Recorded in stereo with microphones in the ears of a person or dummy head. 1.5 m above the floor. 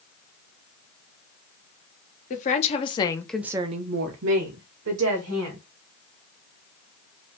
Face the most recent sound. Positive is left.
turn(degrees=-85)